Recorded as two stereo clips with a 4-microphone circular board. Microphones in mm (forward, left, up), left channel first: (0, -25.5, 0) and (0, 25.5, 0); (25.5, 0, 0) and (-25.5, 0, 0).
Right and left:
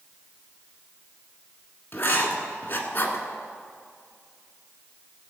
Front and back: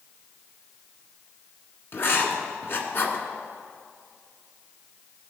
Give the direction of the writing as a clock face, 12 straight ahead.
1 o'clock.